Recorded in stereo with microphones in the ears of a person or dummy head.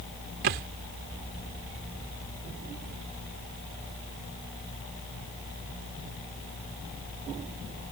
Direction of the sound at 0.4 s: 50° right (ahead or behind).